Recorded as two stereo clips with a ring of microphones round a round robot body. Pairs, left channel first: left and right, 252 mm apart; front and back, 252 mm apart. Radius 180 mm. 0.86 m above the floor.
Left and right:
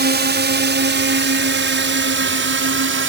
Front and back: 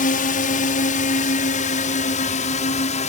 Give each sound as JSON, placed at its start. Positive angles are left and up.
{"t": 0.0, "sound": "a drone", "azimuth_deg": -55}